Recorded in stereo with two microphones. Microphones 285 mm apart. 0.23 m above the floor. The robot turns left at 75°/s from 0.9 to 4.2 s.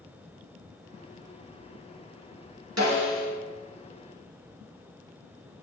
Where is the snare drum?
115° right, 2.5 m; by 3.3 s 150° right, 2.5 m.